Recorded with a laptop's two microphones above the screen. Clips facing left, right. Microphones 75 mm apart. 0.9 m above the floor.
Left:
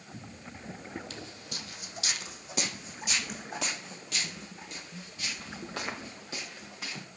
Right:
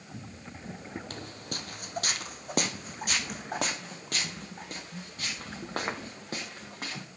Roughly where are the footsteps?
Right.